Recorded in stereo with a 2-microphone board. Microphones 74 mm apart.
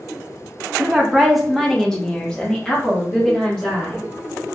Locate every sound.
0.8 s a woman speaking: 15° right (ahead or behind), 0.6 m; by 4.1 s 15° left (ahead or behind), 2 m